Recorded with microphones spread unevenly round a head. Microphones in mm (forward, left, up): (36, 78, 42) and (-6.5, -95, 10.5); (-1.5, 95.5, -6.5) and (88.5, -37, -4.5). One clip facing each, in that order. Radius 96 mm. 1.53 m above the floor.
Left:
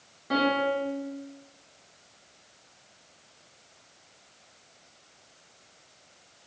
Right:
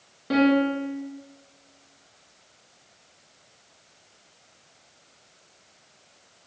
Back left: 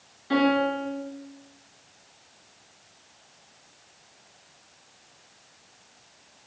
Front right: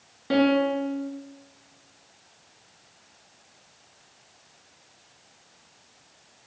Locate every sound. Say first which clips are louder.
0.3 s a piano: right 6 dB, front right 2 dB; 45° right, 0.9 m